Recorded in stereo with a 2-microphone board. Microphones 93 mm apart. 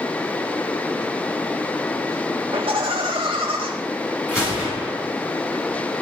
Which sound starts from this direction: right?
Laughter, at 2.5 s.